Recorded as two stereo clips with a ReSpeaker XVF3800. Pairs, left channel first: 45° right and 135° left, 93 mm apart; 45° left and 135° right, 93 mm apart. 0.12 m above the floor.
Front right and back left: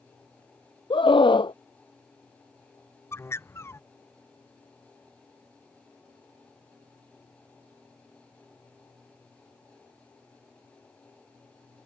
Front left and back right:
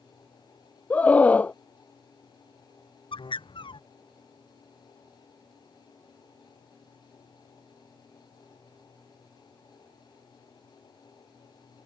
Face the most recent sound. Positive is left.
turn(degrees=20)